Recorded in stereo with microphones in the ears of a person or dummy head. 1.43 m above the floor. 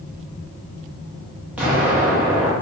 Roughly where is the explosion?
Centre.